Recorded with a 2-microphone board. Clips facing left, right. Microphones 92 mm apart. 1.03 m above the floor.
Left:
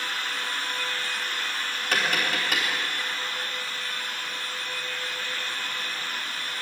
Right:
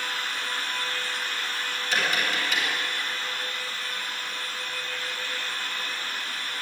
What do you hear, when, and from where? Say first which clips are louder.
1.9 s tapping: left 1 dB; 65° left (ahead or behind), 3.5 m